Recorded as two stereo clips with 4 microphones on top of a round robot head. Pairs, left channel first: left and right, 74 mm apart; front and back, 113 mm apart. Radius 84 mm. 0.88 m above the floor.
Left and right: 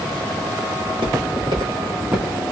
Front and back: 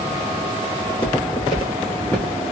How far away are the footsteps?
About 1.5 m.